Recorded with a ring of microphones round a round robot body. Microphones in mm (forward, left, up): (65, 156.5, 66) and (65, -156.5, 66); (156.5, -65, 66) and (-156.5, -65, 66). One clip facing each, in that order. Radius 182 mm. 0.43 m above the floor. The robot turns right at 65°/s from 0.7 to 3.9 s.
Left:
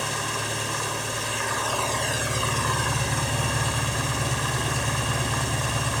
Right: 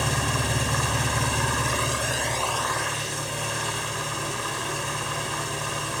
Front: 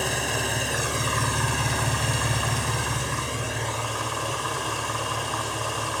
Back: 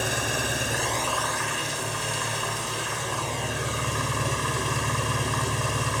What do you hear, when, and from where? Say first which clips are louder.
0.0 s an engine running: right 4 dB, front 1 dB; 95° right, 3 m; by 6.0 s 115° left, 3 m